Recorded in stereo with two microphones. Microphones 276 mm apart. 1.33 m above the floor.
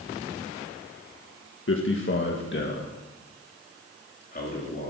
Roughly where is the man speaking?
Left.